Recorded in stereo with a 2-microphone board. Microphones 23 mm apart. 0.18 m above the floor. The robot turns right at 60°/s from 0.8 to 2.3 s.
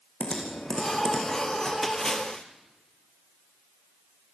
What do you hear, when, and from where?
0.2 s typing on a keyboard: 45° left (ahead or behind), 6 m; by 1.7 s 10° right (ahead or behind), 6 m
1.8 s a splash: 10° left (ahead or behind), 2.5 m; by 2.5 s 40° left (ahead or behind), 2.5 m